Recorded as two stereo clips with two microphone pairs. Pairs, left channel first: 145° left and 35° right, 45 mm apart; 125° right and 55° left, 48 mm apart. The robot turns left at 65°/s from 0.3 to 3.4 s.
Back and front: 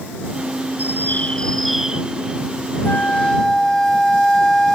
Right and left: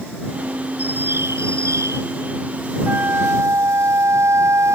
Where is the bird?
115° left; by 2.0 s 35° left.